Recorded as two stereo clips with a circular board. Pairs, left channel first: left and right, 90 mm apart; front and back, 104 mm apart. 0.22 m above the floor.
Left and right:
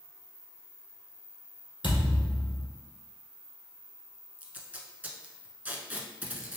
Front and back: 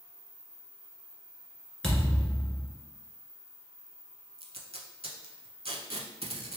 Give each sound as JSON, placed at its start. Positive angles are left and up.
{"t": 1.8, "sound": "a thud", "azimuth_deg": 85, "distance_m": 1.4}
{"t": 4.4, "sound": "tape being pulled", "azimuth_deg": -160, "distance_m": 0.6}